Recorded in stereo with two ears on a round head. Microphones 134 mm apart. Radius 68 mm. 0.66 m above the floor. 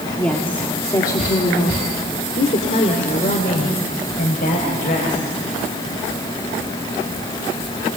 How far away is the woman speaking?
About 1.8 m.